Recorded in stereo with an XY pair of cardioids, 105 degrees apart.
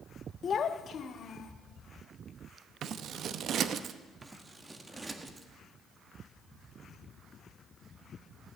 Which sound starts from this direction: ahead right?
Scissors, at 2.8 s.